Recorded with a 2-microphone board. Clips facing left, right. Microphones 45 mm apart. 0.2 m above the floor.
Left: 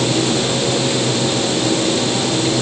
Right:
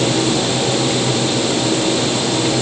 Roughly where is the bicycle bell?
No bicycle bell in this recording.